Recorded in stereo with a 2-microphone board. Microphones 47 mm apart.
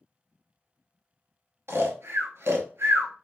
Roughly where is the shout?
I don't hear a shout.